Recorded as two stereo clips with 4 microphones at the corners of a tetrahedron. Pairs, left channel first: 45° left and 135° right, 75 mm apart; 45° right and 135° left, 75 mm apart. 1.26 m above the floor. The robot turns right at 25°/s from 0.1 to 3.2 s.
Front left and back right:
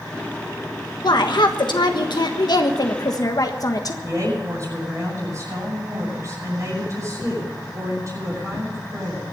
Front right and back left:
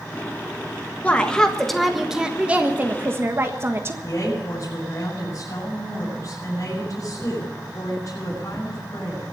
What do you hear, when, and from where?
1.0 s a woman speaking: 25° left, 1.5 m; by 3.9 s 80° left, 1.5 m
4.0 s a woman speaking: 85° right, 8 m